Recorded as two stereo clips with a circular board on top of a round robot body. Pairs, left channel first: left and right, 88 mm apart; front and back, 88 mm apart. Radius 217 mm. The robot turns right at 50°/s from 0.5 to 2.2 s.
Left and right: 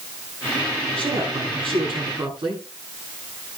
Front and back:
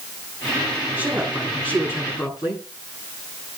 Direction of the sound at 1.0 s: 115° right.